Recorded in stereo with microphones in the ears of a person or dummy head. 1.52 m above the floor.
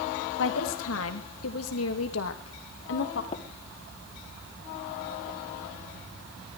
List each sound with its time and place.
0.4 s a woman speaking: 75° left (ahead or behind), 3 m; by 3.2 s 65° left (ahead or behind), 2.5 m
3.3 s tapping: 35° left (ahead or behind), 1.6 m